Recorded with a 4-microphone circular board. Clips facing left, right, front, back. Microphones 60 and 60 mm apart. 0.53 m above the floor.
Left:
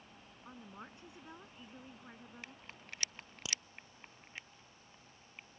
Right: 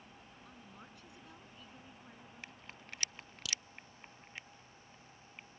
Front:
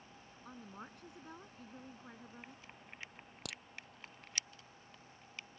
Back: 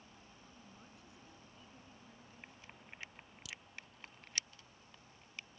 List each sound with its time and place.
0.5 s a woman speaking: 30° left
3.5 s a crack: 25° left